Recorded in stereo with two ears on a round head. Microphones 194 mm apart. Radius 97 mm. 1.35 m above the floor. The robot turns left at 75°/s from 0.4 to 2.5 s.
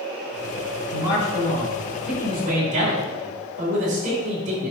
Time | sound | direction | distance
0.9 | a man speaking | 85° left | 5 m